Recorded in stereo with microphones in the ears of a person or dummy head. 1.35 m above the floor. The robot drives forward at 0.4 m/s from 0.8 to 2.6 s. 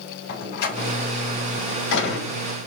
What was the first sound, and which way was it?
A door slam, 50° left (ahead or behind).